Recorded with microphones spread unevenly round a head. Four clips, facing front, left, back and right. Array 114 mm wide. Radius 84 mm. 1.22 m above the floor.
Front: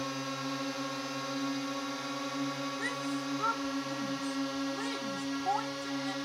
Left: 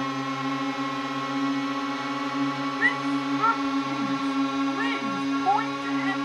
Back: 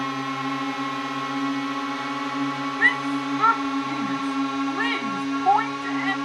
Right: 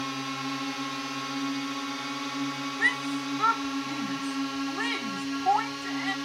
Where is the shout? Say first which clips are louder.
Left 3 dB, back 11 dB; straight behind.